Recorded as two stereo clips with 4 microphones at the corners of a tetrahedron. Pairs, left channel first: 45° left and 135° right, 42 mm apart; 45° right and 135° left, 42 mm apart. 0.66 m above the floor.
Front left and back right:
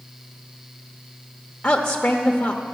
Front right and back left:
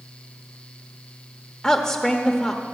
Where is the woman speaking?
10° left, 0.9 m.